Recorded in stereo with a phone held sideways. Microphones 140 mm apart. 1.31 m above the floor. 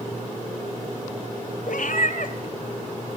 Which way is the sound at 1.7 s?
70° left (ahead or behind).